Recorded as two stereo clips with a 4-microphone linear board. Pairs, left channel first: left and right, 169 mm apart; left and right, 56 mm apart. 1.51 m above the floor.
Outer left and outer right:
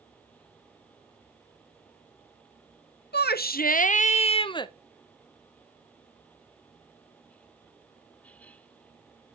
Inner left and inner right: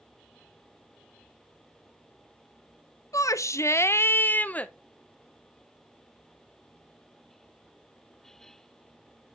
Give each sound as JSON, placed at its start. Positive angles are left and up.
{"t": 3.1, "sound": "a shout", "side_deg": 75, "distance_m": 0.8}